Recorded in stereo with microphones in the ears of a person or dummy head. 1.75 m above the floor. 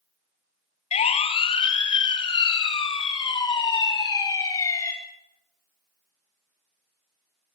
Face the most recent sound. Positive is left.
turn(degrees=20)  # may be behind; listen again after turning